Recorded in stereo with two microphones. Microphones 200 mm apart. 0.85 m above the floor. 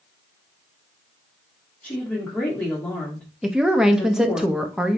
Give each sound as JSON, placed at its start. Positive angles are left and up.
{"t": 1.8, "sound": "a woman speaking", "side_deg": 5, "distance_m": 1.8}
{"t": 3.4, "sound": "a woman speaking", "side_deg": -5, "distance_m": 0.8}